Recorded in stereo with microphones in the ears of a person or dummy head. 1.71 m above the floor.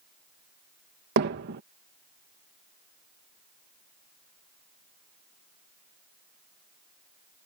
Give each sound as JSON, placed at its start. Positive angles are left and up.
{"t": 1.2, "sound": "hammering", "side_deg": -55}